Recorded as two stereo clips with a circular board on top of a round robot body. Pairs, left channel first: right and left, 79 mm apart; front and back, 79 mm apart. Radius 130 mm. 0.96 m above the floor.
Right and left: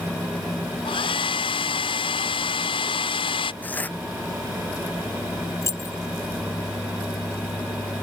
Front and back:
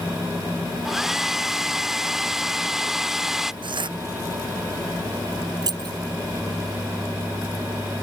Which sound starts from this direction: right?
A hair dryer, at 0.8 s.